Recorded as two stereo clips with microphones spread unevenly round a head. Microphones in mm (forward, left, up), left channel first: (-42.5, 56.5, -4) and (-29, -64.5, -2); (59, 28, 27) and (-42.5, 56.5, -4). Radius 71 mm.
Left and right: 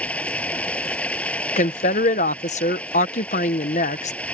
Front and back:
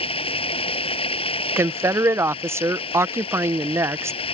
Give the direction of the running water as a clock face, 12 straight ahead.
12 o'clock.